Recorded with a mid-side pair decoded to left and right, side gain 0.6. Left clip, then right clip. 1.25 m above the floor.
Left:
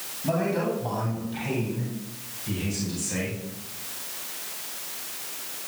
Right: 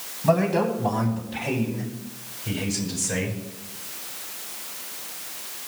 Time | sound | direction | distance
0.2 | a man speaking | 45° right | 9.5 m